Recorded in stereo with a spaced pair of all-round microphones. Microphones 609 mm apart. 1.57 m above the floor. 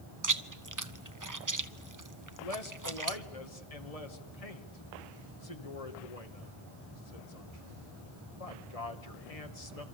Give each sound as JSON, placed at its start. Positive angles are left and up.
{"t": 0.2, "sound": "chewing", "side_deg": -30, "distance_m": 0.8}
{"t": 2.4, "sound": "a man speaking", "side_deg": 70, "distance_m": 2.0}